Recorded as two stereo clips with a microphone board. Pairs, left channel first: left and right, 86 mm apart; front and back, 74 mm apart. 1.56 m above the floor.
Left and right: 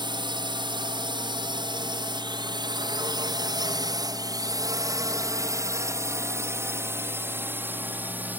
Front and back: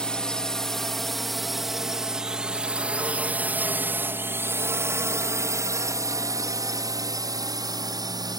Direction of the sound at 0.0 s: 75° right.